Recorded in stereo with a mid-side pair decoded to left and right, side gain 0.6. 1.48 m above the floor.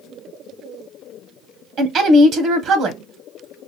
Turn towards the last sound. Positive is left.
turn(degrees=-55)